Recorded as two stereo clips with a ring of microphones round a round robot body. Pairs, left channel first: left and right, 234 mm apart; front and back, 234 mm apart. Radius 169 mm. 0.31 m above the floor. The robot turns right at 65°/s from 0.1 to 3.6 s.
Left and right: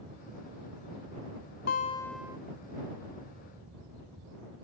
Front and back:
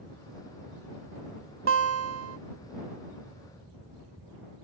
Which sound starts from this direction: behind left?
A guitar, at 1.7 s.